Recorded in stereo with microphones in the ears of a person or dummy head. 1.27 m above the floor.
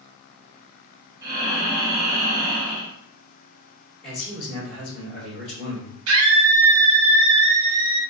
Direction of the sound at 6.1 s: 70° right (ahead or behind).